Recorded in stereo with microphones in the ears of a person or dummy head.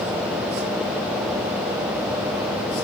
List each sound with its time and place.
Only background noise.